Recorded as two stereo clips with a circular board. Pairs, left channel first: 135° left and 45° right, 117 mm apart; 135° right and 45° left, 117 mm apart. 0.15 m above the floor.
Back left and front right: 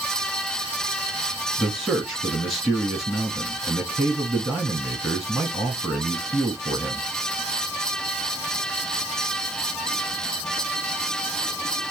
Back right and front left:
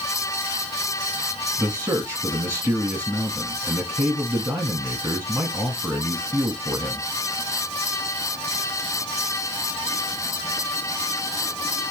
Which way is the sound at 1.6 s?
40° left.